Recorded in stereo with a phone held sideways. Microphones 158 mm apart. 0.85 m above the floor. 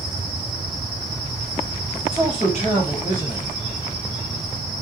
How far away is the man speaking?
About 3 m.